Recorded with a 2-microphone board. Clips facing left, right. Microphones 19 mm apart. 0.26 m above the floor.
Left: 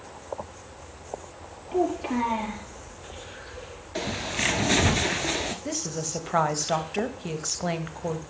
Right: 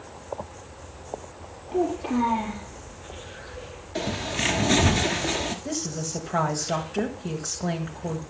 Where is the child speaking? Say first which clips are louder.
Right 1 dB; 45° left (ahead or behind), 4.5 m.